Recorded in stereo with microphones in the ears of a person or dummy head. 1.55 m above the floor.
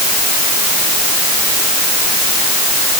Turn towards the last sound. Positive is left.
No sound to turn to.